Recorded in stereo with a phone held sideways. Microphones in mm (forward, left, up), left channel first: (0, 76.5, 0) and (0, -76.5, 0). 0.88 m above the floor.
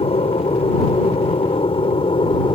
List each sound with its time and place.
0.0 s an aircraft: 40° left (ahead or behind); by 2.5 s 35° left (ahead or behind)